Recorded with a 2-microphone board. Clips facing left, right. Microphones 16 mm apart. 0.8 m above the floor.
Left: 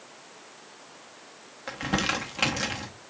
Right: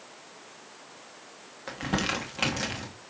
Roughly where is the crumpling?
Centre.